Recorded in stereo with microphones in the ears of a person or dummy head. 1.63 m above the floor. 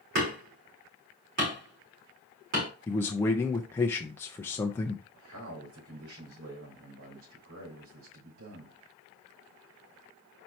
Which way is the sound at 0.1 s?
60° right (ahead or behind).